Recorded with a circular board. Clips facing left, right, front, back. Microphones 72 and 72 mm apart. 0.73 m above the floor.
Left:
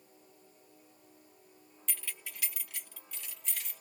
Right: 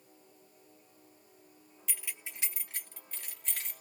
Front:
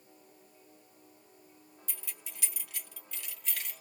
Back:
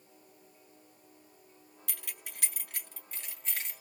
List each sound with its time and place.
1.9 s keys jangling: 175° right, 0.5 m; by 3.8 s 120° right, 1.4 m